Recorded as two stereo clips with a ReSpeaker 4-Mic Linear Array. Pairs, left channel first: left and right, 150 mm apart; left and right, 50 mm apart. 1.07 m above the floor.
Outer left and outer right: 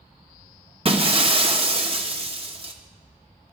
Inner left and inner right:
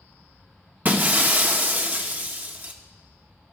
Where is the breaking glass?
40° right (ahead or behind), 1.3 m.